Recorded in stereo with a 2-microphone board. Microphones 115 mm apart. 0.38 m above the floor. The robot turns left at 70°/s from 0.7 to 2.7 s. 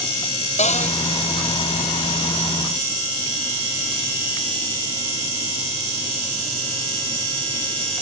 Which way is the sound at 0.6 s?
85° left.